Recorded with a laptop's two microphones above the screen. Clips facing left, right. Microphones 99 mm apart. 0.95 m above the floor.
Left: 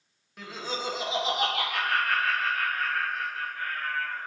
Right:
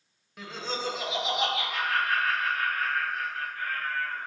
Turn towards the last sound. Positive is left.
turn(degrees=65)  # may be behind; listen again after turning